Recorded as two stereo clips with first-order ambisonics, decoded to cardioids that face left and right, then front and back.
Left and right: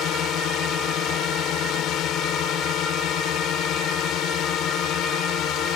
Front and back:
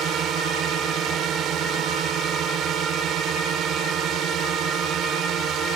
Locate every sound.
0.0 s a drone: 135° left